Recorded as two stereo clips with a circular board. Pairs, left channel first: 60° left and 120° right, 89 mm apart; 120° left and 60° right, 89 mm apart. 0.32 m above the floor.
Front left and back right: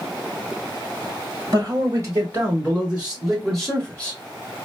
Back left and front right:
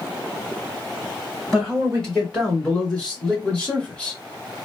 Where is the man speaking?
160° right, 2 m; by 4.2 s 75° left, 1.5 m.